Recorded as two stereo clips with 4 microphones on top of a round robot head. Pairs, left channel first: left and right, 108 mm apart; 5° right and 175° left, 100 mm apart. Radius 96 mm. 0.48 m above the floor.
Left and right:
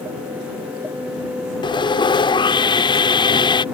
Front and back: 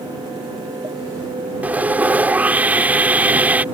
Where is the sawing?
105° left.